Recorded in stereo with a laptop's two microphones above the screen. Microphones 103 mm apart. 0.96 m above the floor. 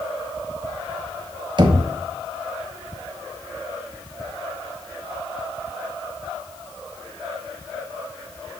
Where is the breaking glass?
I don't hear breaking glass.